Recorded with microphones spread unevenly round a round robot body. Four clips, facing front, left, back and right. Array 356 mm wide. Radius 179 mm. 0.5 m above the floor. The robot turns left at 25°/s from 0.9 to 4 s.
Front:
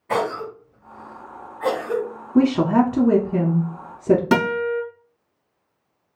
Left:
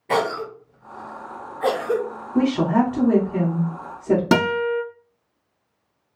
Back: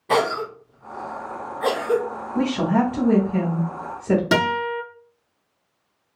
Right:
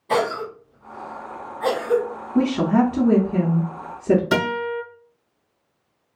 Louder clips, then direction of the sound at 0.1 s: Even, back 2 dB; 140° left.